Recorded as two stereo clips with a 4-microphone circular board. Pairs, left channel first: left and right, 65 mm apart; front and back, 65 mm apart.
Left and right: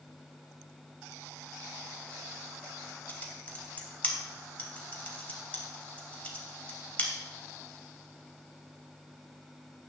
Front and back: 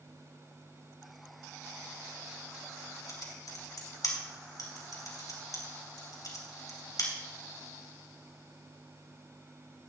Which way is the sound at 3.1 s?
20° left.